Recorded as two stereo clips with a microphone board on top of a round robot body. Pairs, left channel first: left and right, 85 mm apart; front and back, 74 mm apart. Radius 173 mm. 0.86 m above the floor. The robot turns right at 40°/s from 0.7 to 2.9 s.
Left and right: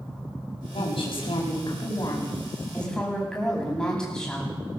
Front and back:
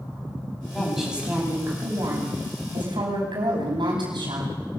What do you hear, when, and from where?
0.7 s a woman speaking: 85° left, 9 m; by 4.5 s 170° left, 9 m